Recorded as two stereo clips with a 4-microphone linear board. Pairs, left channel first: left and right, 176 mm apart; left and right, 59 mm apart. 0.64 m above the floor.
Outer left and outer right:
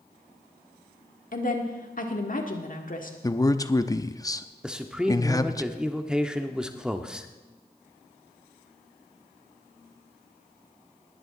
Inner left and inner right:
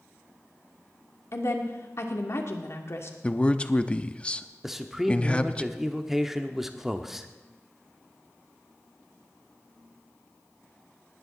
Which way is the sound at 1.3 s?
55° left (ahead or behind).